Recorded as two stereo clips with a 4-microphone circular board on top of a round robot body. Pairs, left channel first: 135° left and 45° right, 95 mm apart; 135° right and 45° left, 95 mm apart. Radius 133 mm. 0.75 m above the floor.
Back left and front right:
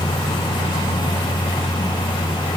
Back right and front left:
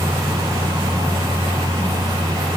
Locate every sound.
Only background noise.